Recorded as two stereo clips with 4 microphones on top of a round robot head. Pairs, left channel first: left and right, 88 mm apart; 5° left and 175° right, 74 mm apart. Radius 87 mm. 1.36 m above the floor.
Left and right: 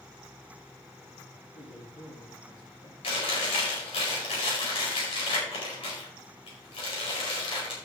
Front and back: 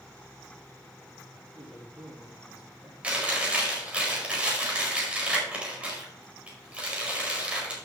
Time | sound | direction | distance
1.5 | a man speaking | 110° left | 3.5 m
3.0 | chewing | 110° left | 4.5 m